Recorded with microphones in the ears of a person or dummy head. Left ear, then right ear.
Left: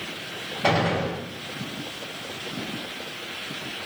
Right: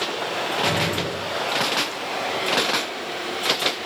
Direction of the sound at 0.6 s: 45° left (ahead or behind).